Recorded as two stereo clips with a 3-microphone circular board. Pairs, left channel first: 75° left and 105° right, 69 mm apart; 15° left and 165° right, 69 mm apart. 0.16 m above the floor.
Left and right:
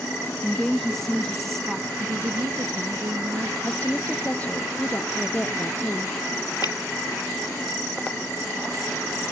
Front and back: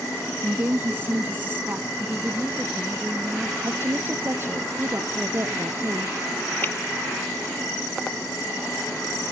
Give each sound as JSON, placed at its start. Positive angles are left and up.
{"t": 0.4, "sound": "a woman speaking", "azimuth_deg": 155}
{"t": 2.0, "sound": "a woman speaking", "azimuth_deg": -85}
{"t": 3.6, "sound": "a woman speaking", "azimuth_deg": 140}
{"t": 6.6, "sound": "dripping", "azimuth_deg": 75}